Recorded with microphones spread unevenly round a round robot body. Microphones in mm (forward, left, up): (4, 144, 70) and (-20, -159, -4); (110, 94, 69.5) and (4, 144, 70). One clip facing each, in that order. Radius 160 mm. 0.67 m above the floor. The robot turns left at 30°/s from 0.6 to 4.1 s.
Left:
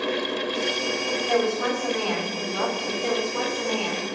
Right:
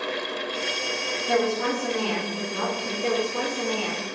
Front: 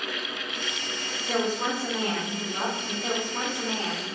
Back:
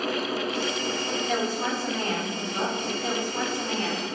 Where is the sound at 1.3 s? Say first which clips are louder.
Even, front 3 dB; 85° right, 1.8 m; by 2.9 s 135° right, 1.8 m.